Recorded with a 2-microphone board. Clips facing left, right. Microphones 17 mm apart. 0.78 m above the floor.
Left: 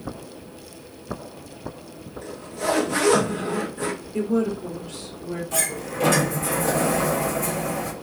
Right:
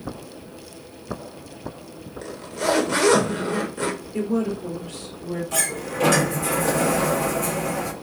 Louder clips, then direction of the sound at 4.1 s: Left 2 dB; centre (ahead or behind).